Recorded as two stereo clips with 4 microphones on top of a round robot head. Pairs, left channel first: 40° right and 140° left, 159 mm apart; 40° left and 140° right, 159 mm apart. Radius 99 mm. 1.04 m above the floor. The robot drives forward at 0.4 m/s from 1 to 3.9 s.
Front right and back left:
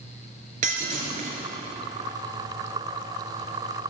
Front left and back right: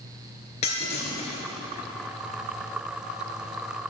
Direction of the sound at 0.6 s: 95° left.